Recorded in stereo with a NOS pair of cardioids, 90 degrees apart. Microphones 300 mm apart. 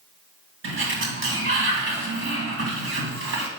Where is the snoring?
I don't hear snoring.